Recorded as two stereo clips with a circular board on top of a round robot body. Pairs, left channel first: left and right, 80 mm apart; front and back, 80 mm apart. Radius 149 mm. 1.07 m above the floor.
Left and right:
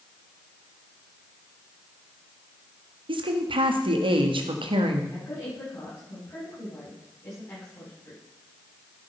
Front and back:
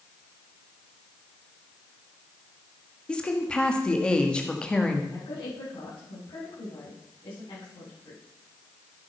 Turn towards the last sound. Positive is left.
turn(degrees=25)